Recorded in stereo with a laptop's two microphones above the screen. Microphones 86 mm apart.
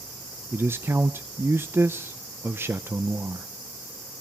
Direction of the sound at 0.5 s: 25° right (ahead or behind).